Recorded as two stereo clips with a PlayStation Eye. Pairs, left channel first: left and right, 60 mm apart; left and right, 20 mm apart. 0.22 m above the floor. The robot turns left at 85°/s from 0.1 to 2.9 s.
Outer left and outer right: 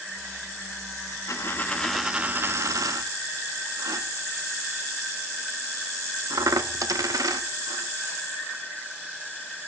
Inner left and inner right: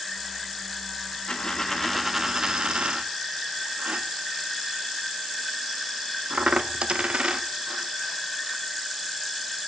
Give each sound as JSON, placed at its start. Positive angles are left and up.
{"t": 1.3, "sound": "a dropped coin", "side_deg": 55, "distance_m": 0.5}